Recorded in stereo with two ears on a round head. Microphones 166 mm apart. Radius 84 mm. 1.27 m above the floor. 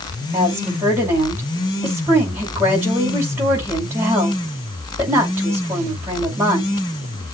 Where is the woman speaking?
15° right (ahead or behind), 5.5 m.